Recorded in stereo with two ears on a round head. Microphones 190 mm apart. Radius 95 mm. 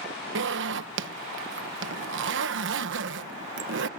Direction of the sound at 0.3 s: 60° right (ahead or behind).